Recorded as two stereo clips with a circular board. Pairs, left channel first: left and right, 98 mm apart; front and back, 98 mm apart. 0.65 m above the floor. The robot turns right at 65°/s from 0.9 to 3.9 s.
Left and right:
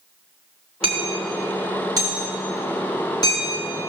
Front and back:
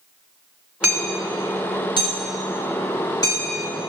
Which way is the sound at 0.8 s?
105° right.